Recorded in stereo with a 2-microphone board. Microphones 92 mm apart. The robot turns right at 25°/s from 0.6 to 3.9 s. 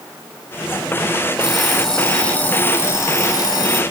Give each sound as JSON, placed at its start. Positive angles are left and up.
{"t": 1.4, "sound": "an alarm clock", "azimuth_deg": -5, "distance_m": 3.5}